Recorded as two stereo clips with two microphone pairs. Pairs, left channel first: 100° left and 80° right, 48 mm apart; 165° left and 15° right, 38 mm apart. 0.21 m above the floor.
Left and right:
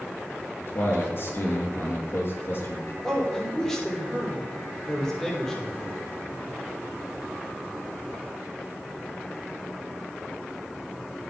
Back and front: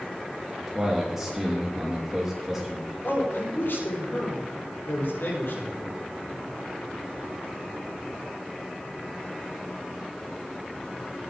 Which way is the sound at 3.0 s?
175° right.